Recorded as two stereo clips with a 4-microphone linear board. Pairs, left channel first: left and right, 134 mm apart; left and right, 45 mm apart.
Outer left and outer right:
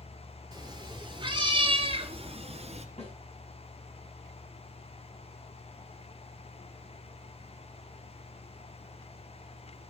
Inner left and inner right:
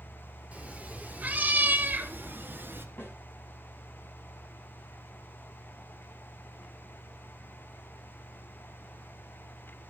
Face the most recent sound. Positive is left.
turn(degrees=55)  # may be behind; listen again after turning